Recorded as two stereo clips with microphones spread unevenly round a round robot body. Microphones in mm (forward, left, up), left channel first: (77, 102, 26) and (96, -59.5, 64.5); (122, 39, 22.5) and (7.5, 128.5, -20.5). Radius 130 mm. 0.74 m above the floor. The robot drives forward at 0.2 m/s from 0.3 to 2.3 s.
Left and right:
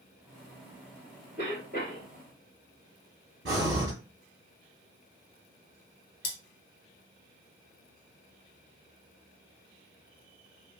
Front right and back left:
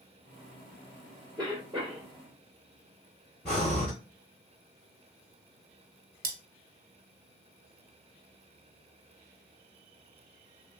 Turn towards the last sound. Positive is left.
turn(degrees=145)